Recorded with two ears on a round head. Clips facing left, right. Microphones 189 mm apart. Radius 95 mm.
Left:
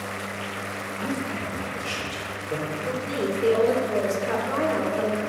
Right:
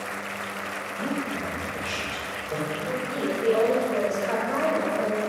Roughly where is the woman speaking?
Left.